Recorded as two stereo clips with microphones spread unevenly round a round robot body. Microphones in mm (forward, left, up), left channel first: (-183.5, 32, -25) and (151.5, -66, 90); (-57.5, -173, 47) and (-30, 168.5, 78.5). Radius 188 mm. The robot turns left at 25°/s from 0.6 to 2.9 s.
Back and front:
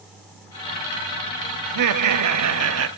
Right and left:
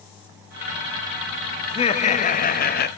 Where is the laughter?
40° right, 1.0 m; by 2.9 s 70° right, 1.0 m.